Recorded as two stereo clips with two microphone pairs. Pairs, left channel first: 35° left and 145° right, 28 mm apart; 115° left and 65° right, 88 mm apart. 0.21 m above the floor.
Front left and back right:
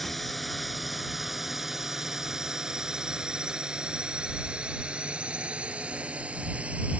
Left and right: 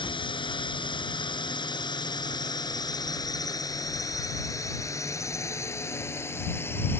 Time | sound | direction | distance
0.0 | a drone | 120° left | ?